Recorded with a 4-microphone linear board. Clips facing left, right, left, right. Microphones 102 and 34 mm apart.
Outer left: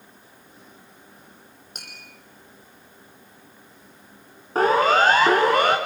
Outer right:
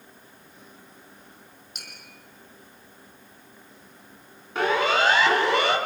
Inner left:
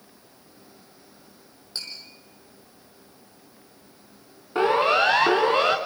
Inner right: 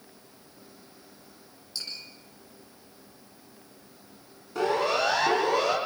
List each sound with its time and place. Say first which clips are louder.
1.8 s tapping: outer left 2 dB, inner left 2 dB; 45° left (ahead or behind), 8 m
4.5 s a siren: outer left 5 dB, inner left 6 dB; 40° left (ahead or behind), 3 m; by 5.8 s 50° left (ahead or behind), 3.5 m